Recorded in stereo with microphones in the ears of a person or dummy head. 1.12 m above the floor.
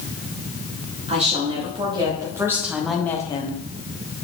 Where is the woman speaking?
30° right (ahead or behind), 2 m; by 3.6 s 35° left (ahead or behind), 0.9 m.